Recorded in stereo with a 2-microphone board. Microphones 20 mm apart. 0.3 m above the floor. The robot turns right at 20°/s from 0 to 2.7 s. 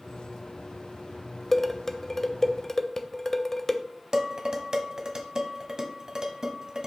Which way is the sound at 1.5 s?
15° left (ahead or behind).